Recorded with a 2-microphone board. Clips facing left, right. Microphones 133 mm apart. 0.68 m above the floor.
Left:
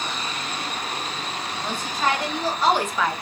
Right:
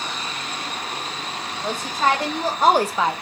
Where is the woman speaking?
35° right (ahead or behind), 1.8 m; by 3.1 s 15° right (ahead or behind), 0.7 m.